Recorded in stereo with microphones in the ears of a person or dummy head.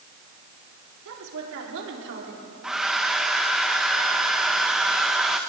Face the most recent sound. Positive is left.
turn(degrees=0)  # may be behind; listen again after turning